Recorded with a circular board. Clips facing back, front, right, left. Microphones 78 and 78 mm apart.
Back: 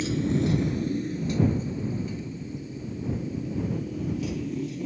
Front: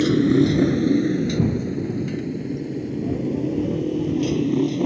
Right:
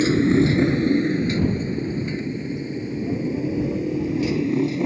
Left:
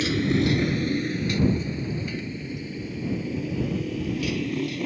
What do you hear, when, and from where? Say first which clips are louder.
0.0 s a motorcycle: front 9 dB, right 6 dB; 30° right; by 4.9 s 25° right